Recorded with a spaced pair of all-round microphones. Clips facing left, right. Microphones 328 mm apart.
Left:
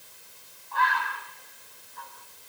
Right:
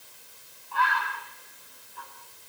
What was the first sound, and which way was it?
A bird, 40° right (ahead or behind).